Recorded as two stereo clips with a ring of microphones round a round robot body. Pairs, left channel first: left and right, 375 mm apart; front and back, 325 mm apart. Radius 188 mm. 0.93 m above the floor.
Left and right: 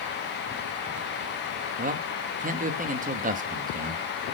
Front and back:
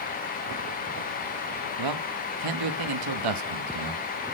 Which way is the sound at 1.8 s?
160° right.